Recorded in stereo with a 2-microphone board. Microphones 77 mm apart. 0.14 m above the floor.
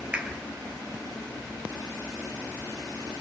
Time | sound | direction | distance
0.1 | a clap | 15° right (ahead or behind) | 2.5 m